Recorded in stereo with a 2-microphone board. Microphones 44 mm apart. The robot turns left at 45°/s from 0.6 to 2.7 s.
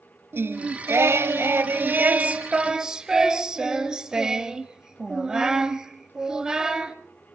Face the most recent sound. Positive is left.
turn(degrees=-160)